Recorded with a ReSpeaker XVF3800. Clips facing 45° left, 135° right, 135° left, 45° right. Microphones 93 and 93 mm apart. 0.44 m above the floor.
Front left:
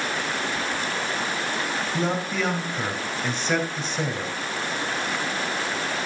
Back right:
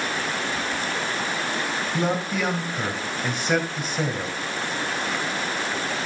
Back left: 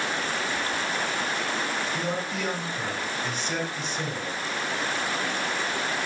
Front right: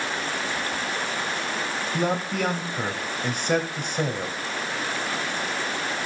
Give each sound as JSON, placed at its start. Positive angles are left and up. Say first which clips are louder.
{"t": 1.9, "sound": "a man speaking", "louder": "back right 2 dB, front right 4 dB", "azimuth_deg": -55, "distance_m": 3.0}